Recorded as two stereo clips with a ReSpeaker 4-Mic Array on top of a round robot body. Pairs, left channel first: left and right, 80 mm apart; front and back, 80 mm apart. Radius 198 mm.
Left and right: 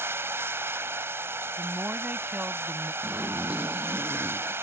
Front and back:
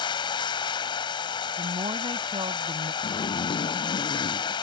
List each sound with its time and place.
0.0 s running water: 25° right
1.6 s a woman speaking: 160° right
3.0 s a zipper: 15° right